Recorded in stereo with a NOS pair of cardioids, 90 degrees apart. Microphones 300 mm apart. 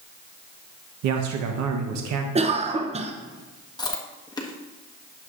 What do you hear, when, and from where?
1.0 s a man speaking: 70° right, 1.0 m
2.4 s a cough: 20° right, 0.6 m
3.8 s chewing: 15° left, 1.3 m